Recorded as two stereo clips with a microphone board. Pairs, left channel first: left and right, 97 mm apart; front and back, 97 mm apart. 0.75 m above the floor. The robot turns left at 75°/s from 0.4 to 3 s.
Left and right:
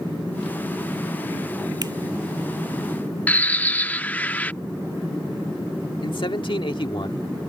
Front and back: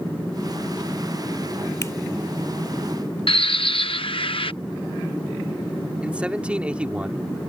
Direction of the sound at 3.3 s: 20° left.